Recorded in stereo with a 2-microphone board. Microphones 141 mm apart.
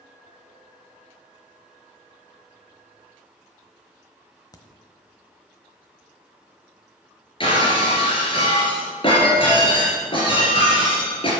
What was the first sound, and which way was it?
A crack, 25° left (ahead or behind).